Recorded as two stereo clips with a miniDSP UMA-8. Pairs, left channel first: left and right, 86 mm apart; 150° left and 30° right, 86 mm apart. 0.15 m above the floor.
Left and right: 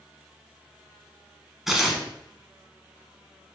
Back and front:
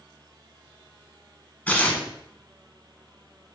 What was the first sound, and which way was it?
Tearing paper, 175° right.